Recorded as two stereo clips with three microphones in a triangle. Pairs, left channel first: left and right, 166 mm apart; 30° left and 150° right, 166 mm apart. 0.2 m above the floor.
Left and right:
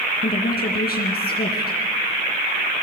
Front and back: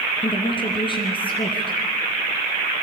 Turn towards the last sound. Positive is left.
turn(degrees=85)